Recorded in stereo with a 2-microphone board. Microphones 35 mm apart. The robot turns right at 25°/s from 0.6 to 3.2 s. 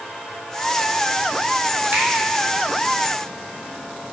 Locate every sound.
1.9 s a finger snap: 70° right (ahead or behind), 2.0 m; by 2.1 s 65° right (ahead or behind), 2.0 m